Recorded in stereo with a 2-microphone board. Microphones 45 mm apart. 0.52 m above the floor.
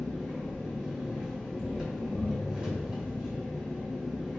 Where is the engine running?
20° right (ahead or behind), 1.3 m.